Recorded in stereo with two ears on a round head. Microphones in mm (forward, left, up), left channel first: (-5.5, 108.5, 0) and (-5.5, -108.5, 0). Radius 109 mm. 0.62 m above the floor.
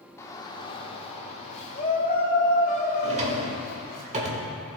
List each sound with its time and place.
0.2 s a shout: 15° left (ahead or behind), 1.0 m; by 4.0 s 40° left (ahead or behind), 3 m
3.0 s a drawer: 30° right (ahead or behind), 1.3 m